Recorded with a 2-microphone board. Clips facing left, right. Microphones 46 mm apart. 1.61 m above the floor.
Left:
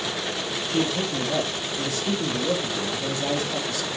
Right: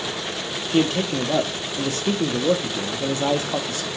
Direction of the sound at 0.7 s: 50° right (ahead or behind).